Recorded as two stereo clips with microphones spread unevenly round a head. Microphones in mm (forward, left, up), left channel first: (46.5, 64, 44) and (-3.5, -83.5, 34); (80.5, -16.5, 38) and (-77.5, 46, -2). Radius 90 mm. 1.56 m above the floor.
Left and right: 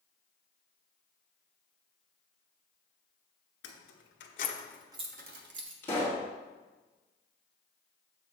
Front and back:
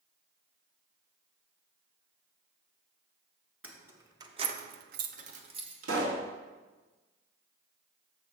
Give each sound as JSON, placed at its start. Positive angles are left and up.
{"t": 3.6, "sound": "keys jangling", "azimuth_deg": 75, "distance_m": 1.5}
{"t": 5.8, "sound": "a pop", "azimuth_deg": 150, "distance_m": 2.0}